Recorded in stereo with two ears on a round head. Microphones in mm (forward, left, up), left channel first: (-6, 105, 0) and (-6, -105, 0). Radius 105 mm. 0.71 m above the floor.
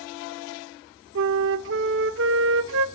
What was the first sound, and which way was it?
A flute, 55° right (ahead or behind).